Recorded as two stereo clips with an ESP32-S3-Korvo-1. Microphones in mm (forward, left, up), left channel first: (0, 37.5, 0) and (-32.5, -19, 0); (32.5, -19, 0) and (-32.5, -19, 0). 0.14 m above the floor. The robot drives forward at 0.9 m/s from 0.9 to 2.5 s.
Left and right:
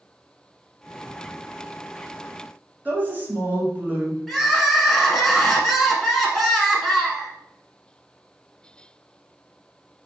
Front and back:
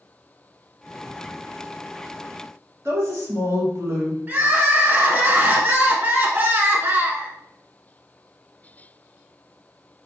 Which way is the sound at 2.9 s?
170° right.